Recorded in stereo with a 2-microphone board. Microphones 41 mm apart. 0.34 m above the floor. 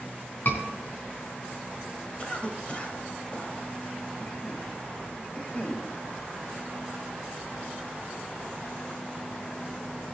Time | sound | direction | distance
0.5 | a scream | 50° left (ahead or behind) | 4 m
2.2 | a cough | 30° left (ahead or behind) | 1.8 m